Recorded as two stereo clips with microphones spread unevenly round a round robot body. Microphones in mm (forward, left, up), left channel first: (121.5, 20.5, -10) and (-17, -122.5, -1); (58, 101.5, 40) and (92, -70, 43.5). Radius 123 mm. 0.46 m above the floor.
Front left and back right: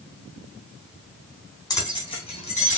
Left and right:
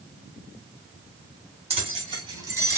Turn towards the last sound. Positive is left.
turn(degrees=-5)